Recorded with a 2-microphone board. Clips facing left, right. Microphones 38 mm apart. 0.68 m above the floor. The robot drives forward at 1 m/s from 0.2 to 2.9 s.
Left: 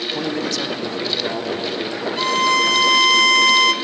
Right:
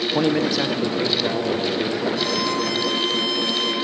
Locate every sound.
0.1 s a man speaking: 25° right (ahead or behind), 0.5 m; by 2.0 s 5° right (ahead or behind), 2.0 m
2.2 s a violin: 50° left (ahead or behind), 1.0 m; by 3.7 s 80° left, 0.7 m